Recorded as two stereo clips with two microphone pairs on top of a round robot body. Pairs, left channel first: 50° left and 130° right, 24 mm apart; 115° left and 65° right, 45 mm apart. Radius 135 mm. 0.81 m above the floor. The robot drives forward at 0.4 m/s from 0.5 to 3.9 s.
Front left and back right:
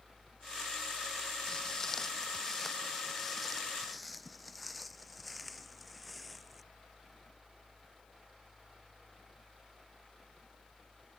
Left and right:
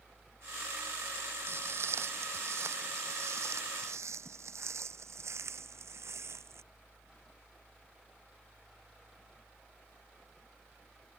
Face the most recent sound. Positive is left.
turn(degrees=-40)